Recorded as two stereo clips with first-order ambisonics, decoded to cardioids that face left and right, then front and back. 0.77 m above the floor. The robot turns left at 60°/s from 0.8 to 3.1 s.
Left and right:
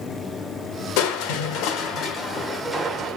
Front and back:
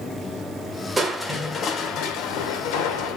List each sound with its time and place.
1.0 s crushing: 100° left, 1.6 m; by 3.2 s 30° right, 1.6 m